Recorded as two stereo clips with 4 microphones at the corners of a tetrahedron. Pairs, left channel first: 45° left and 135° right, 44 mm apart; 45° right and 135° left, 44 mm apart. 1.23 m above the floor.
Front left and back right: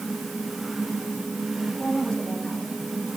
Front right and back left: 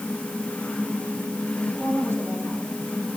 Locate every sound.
1.7 s a woman speaking: 30° right, 8.5 m